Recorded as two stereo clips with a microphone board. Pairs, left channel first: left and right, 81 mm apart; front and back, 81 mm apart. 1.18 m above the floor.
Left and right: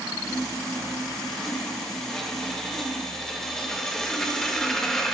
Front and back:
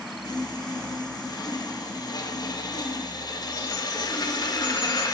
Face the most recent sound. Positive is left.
turn(degrees=5)